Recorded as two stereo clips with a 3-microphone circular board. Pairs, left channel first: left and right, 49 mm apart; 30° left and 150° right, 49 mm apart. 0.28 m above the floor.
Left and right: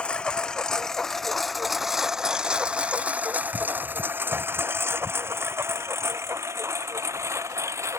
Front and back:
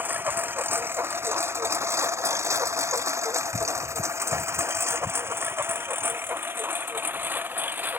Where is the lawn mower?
160° left; by 8.0 s 100° right.